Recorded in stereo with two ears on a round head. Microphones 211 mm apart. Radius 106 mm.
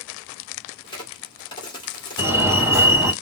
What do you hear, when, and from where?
0.8 s a crack: 20° left (ahead or behind), 1.7 m
2.2 s a fire alarm: 10° right (ahead or behind), 2.5 m